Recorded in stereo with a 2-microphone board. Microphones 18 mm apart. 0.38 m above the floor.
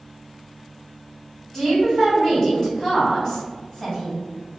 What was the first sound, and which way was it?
A woman speaking, 20° left (ahead or behind).